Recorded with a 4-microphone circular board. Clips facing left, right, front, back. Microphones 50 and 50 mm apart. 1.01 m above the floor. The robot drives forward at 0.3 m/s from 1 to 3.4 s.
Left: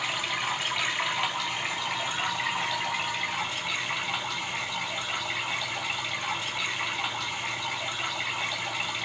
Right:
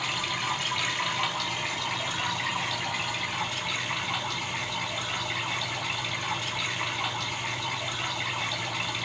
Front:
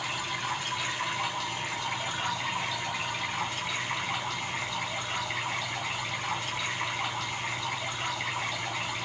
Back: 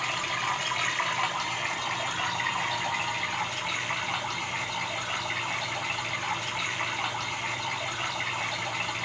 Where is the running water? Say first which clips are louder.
Left 1 dB, back 3 dB; 170° left, 1.0 m; by 9.1 s 175° left, 1.7 m.